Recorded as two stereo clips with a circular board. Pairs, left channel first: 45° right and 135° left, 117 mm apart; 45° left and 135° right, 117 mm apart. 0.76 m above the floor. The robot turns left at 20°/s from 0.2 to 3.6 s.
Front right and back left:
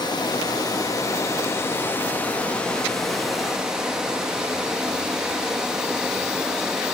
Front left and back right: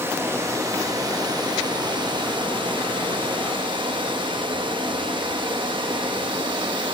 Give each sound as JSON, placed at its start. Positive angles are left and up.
{"t": 0.0, "sound": "running water", "azimuth_deg": -75, "distance_m": 0.8}